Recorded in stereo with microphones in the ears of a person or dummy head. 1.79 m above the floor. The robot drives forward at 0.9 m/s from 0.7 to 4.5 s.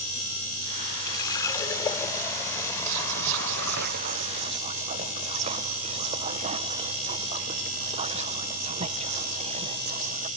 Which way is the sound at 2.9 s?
60° right (ahead or behind).